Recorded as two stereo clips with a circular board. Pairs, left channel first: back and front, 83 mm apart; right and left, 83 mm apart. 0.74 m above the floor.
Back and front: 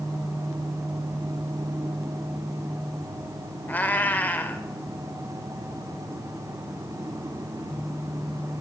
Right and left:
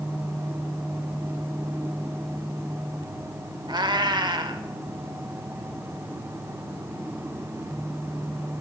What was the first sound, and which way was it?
A cat meowing, 110° left.